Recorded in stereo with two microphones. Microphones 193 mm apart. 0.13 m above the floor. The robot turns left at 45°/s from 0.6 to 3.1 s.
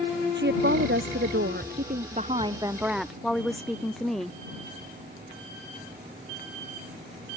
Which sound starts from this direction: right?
A woman speaking, at 0.3 s.